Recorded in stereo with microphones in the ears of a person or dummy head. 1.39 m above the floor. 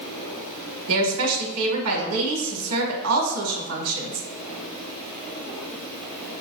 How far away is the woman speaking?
About 1.6 m.